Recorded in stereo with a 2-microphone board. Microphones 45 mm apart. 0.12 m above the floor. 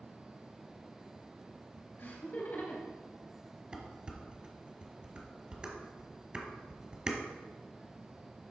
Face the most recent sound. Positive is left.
turn(degrees=-20)  # may be behind; listen again after turning